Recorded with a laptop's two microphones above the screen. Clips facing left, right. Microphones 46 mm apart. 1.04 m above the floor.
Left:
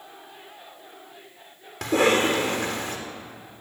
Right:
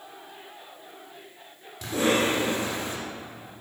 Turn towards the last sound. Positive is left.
turn(degrees=70)  # may be behind; listen again after turning